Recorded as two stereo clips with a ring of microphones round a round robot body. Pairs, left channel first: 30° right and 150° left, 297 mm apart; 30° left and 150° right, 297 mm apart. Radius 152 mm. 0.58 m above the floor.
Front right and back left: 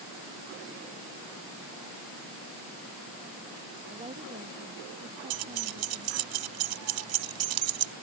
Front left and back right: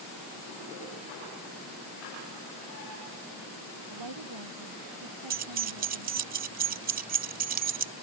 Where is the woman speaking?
140° right; by 6.3 s 150° right.